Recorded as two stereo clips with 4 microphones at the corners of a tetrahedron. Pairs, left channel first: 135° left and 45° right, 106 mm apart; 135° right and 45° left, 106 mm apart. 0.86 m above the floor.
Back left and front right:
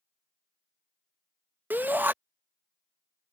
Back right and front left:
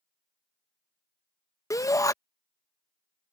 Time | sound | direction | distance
1.7 | a shout | 105° right | ?